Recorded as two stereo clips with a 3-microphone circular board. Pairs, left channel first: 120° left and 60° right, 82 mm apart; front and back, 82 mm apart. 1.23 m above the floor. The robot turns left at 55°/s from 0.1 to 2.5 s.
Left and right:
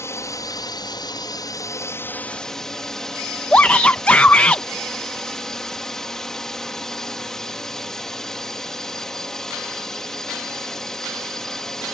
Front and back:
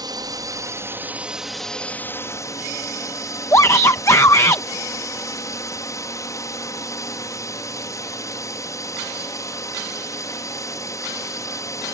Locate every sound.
0.0 s a drone: 170° left; by 11.9 s 35° left
3.5 s a shout: 50° left